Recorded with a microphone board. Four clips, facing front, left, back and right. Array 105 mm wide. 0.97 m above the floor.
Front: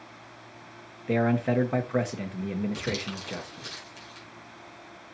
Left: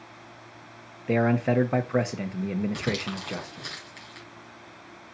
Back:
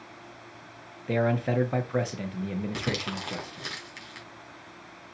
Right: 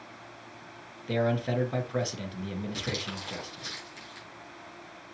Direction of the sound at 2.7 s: 155° left.